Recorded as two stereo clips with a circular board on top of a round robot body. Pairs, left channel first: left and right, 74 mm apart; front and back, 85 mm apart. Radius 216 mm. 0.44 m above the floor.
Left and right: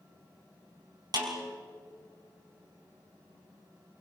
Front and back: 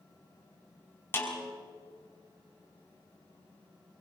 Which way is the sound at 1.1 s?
65° right.